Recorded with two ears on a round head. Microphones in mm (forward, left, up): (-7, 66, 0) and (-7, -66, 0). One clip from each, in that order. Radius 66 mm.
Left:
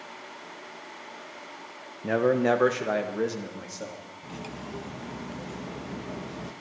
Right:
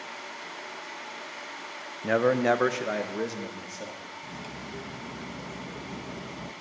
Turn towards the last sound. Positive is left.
turn(degrees=5)  # may be behind; listen again after turning